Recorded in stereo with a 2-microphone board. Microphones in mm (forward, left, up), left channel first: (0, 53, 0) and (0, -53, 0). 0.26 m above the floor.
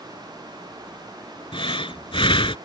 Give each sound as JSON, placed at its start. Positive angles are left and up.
{"t": 1.5, "sound": "breathing", "side_deg": 55}